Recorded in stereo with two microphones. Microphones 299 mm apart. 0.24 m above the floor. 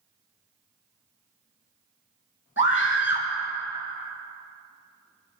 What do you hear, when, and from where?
2.6 s a scream: 40° left (ahead or behind), 3 m